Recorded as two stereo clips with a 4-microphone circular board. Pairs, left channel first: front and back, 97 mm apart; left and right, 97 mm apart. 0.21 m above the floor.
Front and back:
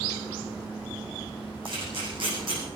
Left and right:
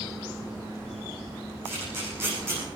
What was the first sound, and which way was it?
A camera shutter, 155° right.